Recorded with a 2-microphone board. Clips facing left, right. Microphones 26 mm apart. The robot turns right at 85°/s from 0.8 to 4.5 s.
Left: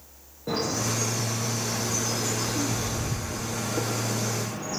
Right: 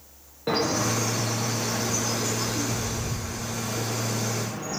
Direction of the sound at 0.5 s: 55° right (ahead or behind).